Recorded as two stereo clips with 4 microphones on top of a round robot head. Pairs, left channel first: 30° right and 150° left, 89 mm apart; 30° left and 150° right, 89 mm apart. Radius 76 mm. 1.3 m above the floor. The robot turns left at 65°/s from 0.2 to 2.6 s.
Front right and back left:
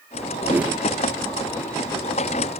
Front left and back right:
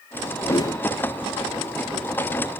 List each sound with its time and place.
0.4 s a whoosh: 90° left, 0.6 m; by 0.8 s 60° left, 0.6 m